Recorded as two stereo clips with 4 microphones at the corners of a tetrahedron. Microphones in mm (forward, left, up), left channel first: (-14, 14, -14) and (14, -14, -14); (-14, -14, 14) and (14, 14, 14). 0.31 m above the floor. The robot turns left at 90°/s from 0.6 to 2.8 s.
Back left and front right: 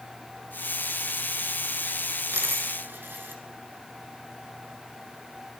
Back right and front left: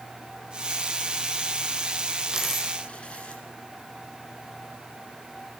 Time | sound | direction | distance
2.3 | a dropped coin | 30° right | 2 m